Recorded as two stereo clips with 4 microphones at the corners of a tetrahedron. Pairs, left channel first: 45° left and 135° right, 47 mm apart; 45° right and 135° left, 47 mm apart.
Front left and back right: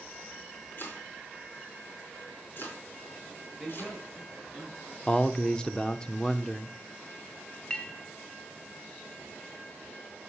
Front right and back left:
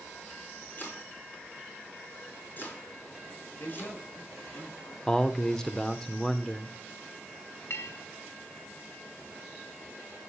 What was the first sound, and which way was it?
Chopping, 5° left.